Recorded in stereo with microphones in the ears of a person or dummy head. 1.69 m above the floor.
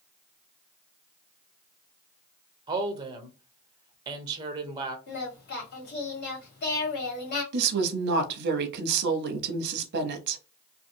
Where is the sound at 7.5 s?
60° right (ahead or behind), 0.7 m.